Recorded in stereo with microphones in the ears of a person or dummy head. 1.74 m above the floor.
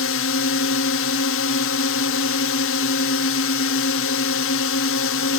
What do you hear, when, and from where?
0.0 s a drone: 60° left (ahead or behind)